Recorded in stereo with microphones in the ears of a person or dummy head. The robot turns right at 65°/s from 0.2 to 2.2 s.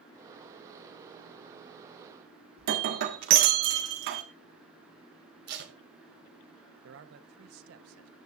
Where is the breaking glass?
60° right (ahead or behind), 1.5 m.